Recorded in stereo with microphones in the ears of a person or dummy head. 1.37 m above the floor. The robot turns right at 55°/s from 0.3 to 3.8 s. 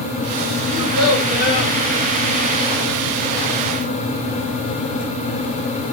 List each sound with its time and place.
0.7 s a child speaking: 95° left, 1.9 m; by 1.7 s 155° left, 1.9 m